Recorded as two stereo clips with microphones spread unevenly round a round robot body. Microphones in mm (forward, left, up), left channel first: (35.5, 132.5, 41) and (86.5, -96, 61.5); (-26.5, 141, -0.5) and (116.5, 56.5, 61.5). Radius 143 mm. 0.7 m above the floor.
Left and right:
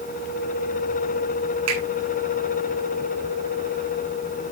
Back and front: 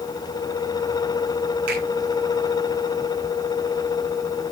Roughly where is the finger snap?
Ahead right.